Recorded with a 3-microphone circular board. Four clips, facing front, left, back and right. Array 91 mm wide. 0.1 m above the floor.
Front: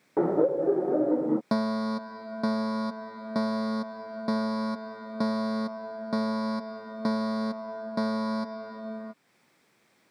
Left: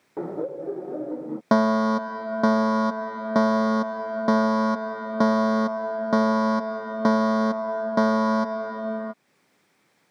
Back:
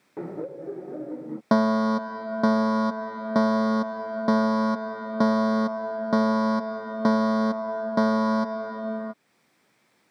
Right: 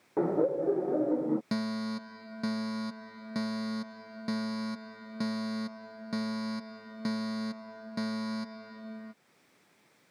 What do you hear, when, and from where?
0.2 s laughter: 5° right
1.5 s a fire alarm: 120° left